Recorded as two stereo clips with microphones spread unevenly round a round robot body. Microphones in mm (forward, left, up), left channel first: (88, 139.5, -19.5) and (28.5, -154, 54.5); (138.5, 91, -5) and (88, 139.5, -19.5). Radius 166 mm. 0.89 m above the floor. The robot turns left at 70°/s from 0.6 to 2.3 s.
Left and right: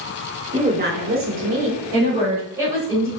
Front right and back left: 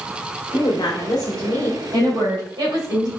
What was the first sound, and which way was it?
A woman speaking, 25° right.